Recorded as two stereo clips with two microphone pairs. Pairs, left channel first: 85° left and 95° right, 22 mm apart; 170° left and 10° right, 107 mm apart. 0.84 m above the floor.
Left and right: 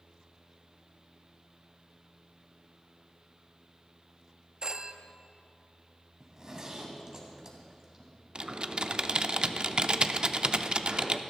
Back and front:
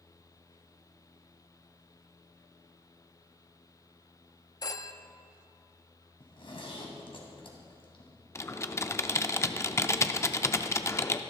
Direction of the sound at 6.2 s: 155° right.